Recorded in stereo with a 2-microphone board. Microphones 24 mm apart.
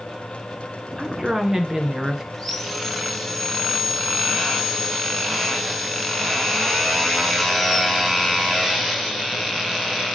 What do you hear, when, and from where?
1.0 s a woman speaking: 25° right (ahead or behind), 1.2 m
2.3 s sawing: 5° left (ahead or behind), 2.5 m